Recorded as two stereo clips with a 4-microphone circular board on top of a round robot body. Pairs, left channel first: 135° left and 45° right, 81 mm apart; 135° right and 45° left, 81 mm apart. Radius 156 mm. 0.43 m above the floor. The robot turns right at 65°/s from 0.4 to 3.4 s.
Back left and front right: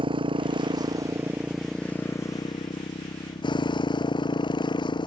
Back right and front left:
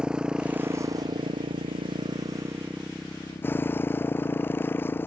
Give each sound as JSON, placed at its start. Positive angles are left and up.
{"t": 0.0, "sound": "a motorcycle", "azimuth_deg": -35}